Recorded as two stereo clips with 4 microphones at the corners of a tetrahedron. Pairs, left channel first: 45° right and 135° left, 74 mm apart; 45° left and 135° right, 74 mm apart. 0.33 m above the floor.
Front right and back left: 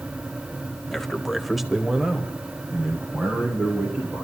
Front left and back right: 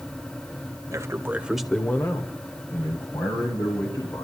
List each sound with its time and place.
0.9 s a man speaking: 130° right, 1.2 m; by 4.2 s 55° left, 3.5 m